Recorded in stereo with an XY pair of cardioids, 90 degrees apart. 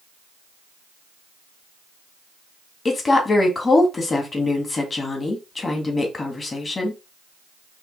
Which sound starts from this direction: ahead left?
A woman speaking, at 2.9 s.